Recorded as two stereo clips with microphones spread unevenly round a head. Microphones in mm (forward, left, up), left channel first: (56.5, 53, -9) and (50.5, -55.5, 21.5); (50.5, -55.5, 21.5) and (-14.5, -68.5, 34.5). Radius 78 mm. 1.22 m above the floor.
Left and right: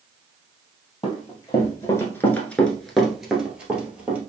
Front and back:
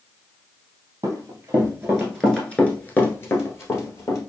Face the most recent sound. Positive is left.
turn(degrees=-30)